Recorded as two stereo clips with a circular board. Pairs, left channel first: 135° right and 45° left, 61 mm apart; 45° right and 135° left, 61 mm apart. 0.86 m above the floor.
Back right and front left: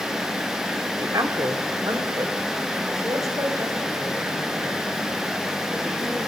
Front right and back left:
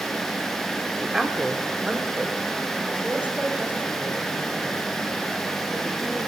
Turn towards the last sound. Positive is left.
turn(degrees=70)